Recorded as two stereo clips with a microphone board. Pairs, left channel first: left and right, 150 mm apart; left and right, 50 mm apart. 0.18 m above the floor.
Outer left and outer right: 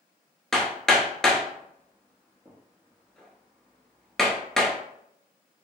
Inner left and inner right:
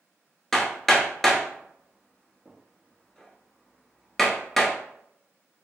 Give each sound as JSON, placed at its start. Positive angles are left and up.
{"t": 0.5, "sound": "hammering", "side_deg": 5, "distance_m": 0.8}